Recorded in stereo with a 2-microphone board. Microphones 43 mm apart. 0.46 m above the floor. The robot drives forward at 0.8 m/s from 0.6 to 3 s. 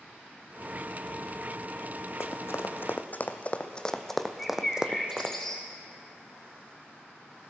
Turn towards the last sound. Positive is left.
turn(degrees=10)  # may be behind; listen again after turning